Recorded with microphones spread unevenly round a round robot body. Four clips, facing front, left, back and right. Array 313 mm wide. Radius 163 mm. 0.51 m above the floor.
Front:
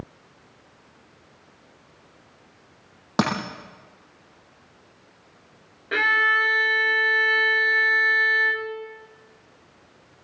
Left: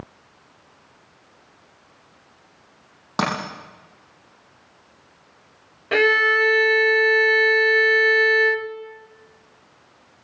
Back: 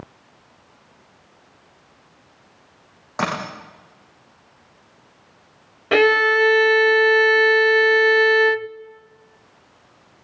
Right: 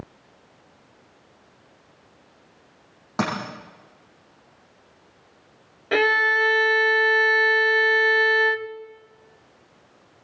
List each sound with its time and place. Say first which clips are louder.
3.2 s a dropped coin: left 2 dB, front 1 dB; 5° left, 9.5 m
5.9 s a violin: left 2 dB, back 7 dB; straight behind, 0.6 m